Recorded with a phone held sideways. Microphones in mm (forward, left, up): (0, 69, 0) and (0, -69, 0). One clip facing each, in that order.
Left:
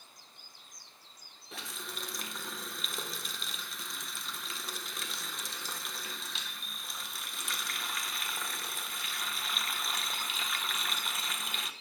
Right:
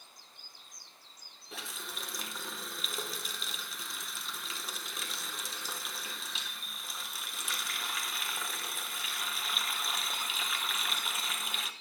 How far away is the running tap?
About 0.5 m.